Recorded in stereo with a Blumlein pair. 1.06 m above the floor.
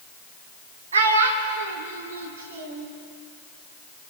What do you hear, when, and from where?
0.9 s a child speaking: 65° right, 1.3 m; by 2.9 s 60° right, 2 m